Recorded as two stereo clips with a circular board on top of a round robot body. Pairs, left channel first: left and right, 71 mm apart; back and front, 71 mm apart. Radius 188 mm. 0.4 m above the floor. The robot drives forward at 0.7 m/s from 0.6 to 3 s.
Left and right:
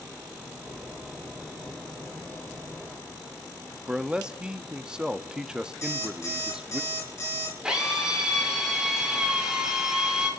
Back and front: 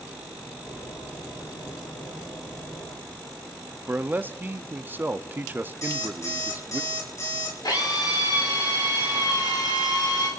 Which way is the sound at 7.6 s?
165° right.